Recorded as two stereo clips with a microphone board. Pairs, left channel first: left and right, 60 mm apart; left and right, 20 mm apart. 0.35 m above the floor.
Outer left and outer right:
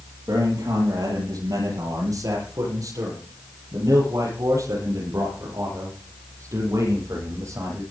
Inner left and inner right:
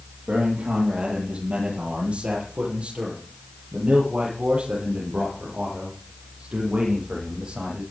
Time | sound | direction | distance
0.3 | a man speaking | 80° right | 8 m